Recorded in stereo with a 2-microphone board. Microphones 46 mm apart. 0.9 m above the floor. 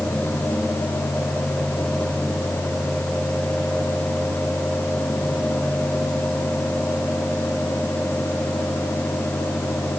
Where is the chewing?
No chewing in this recording.